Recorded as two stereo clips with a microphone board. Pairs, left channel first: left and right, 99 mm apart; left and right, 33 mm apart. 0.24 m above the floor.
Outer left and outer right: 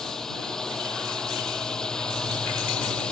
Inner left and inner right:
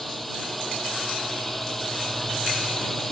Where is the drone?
5° left (ahead or behind); by 3.1 s 10° left (ahead or behind).